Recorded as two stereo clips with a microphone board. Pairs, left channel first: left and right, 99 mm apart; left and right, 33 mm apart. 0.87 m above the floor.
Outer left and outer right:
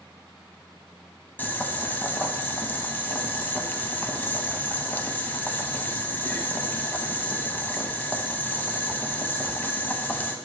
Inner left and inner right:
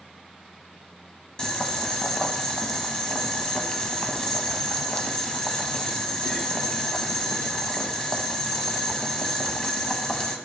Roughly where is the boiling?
Centre.